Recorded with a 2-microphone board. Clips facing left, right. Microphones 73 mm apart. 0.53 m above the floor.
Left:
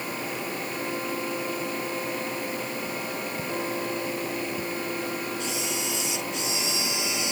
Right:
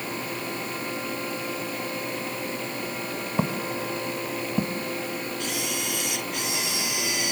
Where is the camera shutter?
55° right (ahead or behind).